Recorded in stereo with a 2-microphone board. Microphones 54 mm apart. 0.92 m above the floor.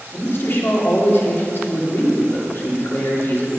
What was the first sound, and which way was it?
A man speaking, 50° left (ahead or behind).